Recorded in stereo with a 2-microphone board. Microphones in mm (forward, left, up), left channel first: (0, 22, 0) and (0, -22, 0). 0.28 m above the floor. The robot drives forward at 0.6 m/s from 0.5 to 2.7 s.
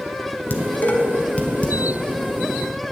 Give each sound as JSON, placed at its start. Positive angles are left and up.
{"t": 0.5, "sound": "dishes clattering", "side_deg": 45, "distance_m": 1.3}